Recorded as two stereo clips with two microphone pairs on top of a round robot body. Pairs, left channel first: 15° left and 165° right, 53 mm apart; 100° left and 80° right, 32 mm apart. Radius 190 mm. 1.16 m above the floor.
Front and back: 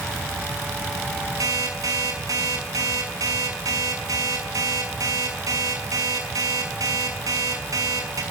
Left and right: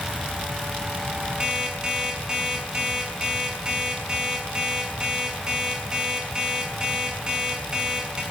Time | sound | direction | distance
1.4 | an alarm clock | 145° right | 7 m